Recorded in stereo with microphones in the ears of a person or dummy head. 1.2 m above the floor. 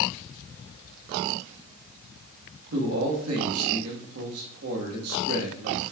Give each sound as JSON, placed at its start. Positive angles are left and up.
{"t": 2.7, "sound": "a man speaking", "side_deg": -80, "distance_m": 1.7}